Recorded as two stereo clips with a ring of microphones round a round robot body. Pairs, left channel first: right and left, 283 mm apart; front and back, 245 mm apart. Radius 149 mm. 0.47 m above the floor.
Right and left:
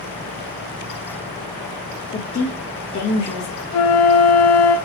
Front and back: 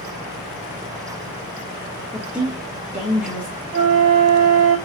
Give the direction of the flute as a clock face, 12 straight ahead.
4 o'clock.